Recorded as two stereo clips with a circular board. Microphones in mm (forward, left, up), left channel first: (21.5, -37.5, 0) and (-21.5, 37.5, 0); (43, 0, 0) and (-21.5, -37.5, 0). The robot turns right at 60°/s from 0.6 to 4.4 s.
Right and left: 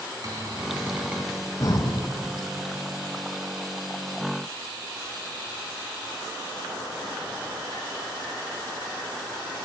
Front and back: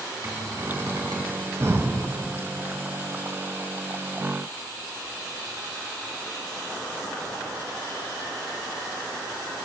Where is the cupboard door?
165° left, 3 m; by 1.3 s 150° right, 3 m.